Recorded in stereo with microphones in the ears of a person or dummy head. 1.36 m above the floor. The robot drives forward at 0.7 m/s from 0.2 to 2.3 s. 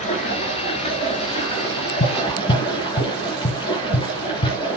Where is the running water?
40° left (ahead or behind), 3.5 m; by 4.8 s 30° left (ahead or behind), 4.5 m.